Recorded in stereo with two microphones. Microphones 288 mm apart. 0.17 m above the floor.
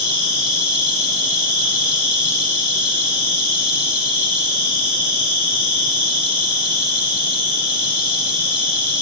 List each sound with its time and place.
0.0 s an insect: 55° left (ahead or behind), 2.5 m